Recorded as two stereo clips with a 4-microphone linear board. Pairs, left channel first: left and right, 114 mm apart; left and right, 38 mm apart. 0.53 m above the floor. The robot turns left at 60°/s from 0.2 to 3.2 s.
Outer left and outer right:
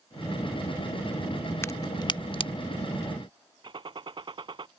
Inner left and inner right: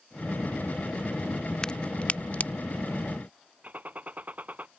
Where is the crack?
20° left (ahead or behind); by 2.5 s 50° left (ahead or behind).